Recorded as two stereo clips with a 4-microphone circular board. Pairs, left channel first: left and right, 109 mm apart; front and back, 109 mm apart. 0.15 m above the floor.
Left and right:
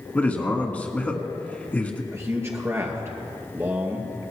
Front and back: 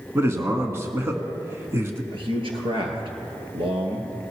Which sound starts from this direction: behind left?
A man speaking, at 0.1 s.